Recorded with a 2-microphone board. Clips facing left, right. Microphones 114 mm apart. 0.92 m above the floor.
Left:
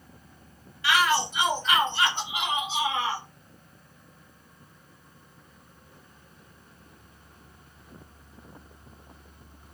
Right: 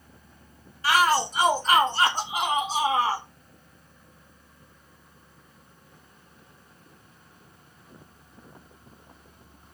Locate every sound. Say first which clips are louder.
0.8 s a shout: right 2 dB; 40° right (ahead or behind), 1.2 m